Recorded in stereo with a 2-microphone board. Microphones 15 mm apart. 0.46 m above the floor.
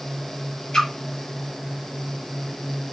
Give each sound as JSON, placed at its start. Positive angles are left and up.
{"t": 0.7, "sound": "a splash", "side_deg": 50, "distance_m": 3.0}